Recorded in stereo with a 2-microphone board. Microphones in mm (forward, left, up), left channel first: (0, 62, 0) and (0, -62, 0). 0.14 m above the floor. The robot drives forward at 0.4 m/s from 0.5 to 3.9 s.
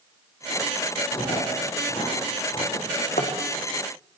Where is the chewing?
40° left (ahead or behind), 8 m.